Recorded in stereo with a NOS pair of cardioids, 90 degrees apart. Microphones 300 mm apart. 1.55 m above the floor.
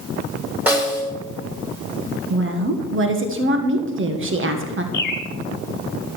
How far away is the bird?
About 1.9 m.